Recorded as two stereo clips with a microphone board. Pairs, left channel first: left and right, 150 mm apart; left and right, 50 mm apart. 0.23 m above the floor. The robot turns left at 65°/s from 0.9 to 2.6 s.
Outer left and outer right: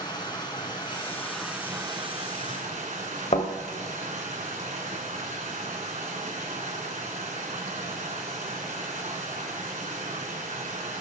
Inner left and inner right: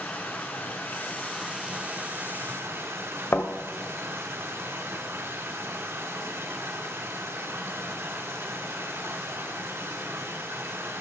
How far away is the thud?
About 1.9 m.